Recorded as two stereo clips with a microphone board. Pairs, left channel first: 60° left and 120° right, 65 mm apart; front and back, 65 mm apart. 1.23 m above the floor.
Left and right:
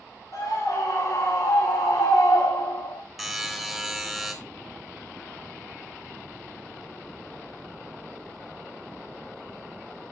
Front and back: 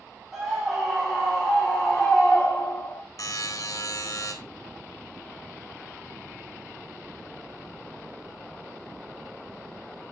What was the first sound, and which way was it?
A scream, 90° left.